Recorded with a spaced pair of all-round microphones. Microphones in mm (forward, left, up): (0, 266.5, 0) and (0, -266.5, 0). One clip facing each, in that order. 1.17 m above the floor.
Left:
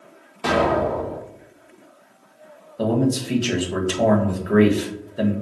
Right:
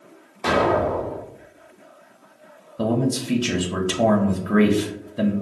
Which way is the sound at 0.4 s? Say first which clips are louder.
Even; 35° left (ahead or behind).